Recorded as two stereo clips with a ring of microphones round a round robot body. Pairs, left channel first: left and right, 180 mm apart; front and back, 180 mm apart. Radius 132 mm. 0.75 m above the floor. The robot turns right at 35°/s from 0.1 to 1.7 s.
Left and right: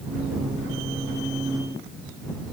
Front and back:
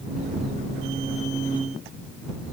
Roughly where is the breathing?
No breathing in this recording.